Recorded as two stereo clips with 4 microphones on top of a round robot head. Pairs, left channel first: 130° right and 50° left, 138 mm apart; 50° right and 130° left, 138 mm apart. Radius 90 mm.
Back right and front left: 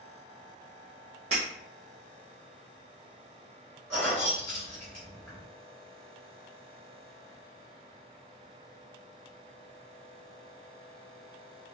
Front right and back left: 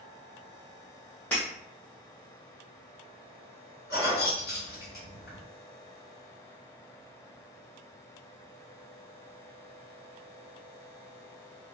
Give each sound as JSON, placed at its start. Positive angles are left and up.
{"t": 1.3, "sound": "breaking glass", "azimuth_deg": 30, "distance_m": 0.8}
{"t": 3.9, "sound": "keys jangling", "azimuth_deg": -55, "distance_m": 1.5}